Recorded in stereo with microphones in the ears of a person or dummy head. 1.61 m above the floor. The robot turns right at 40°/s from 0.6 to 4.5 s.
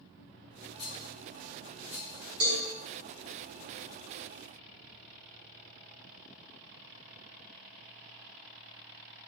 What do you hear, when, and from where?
0.8 s a rattle: 35° left (ahead or behind), 0.8 m; by 2.2 s 20° right (ahead or behind), 0.8 m
2.4 s a cowbell: 85° right, 1.9 m